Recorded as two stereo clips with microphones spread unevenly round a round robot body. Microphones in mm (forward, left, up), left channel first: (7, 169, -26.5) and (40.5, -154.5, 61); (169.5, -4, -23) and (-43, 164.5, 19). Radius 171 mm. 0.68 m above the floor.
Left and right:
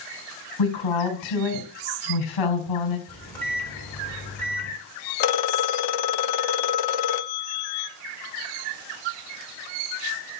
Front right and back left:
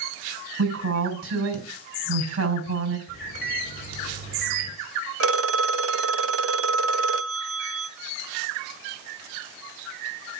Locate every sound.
0.6 s a woman speaking: 110° left, 4.5 m
3.1 s a microwave: 15° left, 4.5 m
5.2 s a phone ringing: 100° left, 0.9 m